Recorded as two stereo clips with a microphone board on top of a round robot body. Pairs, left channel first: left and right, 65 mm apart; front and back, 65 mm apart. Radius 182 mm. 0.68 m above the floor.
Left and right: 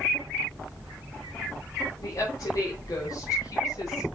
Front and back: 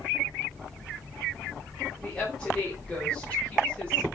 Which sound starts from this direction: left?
A woman speaking, at 2.0 s.